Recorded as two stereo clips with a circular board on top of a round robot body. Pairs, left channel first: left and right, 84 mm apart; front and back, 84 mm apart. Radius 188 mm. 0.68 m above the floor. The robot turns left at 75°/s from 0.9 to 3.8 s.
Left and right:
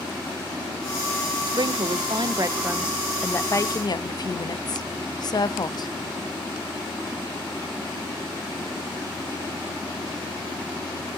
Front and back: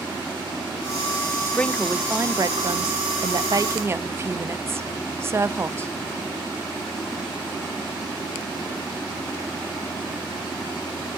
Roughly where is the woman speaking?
Ahead right.